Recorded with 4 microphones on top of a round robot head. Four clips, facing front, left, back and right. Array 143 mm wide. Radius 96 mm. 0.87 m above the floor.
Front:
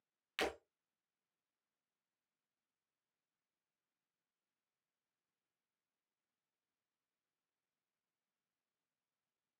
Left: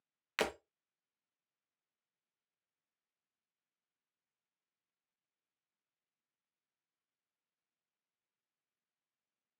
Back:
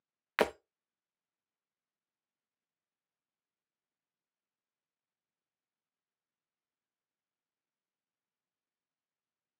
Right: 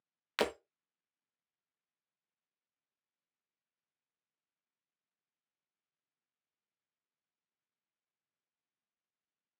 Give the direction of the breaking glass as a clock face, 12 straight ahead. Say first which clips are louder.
Right 3 dB, back 10 dB; 6 o'clock.